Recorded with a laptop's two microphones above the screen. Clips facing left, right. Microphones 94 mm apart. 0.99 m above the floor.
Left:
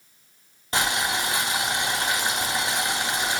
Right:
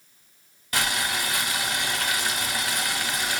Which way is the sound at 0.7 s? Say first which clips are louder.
Left 2 dB; 25° left (ahead or behind).